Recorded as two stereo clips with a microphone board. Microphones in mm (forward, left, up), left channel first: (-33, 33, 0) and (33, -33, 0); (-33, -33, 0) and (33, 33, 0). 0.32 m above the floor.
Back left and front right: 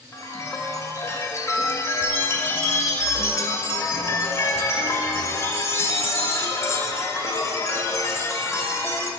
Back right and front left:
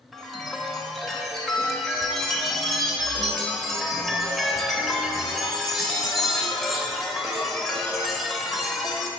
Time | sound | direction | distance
0.1 | a chime | 135° left | 0.7 m